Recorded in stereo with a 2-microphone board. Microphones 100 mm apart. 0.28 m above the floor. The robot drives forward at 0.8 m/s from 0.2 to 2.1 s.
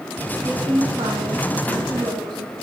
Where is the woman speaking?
65° right (ahead or behind), 2 m; by 2.5 s 55° right (ahead or behind), 2.5 m.